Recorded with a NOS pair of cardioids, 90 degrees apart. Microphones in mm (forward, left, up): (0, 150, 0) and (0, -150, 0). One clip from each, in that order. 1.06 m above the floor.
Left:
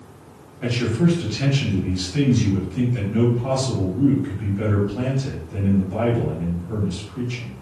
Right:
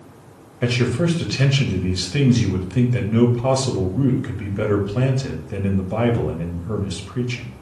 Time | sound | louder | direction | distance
0.6 | a man speaking | right 2 dB | 70° right | 1.5 m